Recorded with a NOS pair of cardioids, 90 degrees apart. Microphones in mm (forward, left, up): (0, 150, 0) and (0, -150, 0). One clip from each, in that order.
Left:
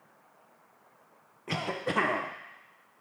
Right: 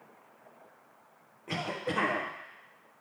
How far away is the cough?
About 1.1 m.